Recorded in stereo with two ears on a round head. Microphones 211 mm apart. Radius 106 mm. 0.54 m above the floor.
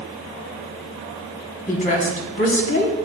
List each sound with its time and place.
1.7 s a woman speaking: 35° left (ahead or behind), 1.4 m